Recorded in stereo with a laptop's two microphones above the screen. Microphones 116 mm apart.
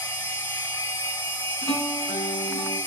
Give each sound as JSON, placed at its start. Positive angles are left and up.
{"t": 0.0, "sound": "a machine running", "side_deg": 20, "distance_m": 0.8}
{"t": 1.6, "sound": "a guitar", "side_deg": 30, "distance_m": 1.6}